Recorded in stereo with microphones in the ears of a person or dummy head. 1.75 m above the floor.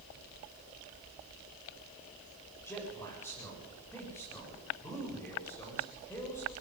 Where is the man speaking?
10° left (ahead or behind), 8 m.